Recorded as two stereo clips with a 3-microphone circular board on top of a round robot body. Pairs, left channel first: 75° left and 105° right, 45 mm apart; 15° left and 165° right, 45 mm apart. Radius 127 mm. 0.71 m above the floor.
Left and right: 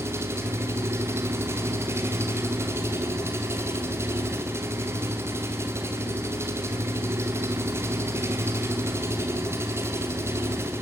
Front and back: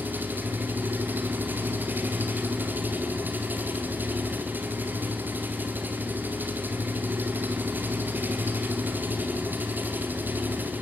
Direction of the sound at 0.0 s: 120° right.